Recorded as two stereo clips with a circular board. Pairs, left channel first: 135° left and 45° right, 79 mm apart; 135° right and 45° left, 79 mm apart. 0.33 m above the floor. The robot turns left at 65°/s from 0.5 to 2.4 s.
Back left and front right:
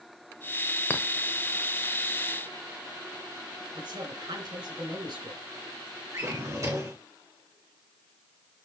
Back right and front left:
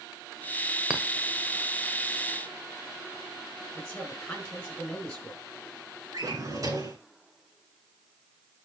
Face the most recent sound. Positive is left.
turn(degrees=0)